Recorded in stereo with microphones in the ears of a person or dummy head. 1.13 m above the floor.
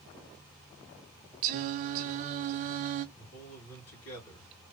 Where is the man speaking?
75° left (ahead or behind), 3 m.